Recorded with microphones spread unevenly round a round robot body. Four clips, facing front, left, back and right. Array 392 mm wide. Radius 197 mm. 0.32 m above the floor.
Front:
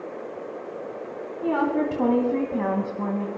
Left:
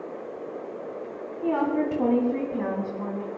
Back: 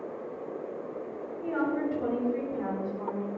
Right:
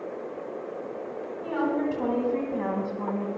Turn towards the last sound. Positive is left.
turn(degrees=-20)